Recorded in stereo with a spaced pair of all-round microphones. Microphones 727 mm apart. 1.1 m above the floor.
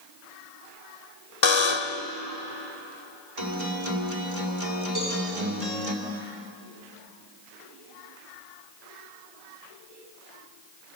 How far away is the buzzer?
About 1.1 m.